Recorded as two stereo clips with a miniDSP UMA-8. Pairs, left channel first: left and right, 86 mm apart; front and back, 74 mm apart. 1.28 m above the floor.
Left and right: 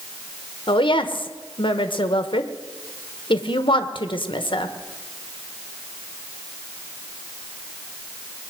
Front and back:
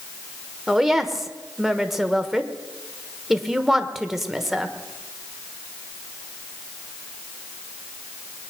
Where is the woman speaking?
95° left, 1.3 m.